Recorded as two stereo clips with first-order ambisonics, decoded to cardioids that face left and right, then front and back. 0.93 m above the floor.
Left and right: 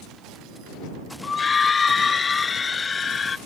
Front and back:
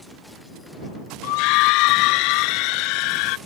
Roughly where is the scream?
Ahead.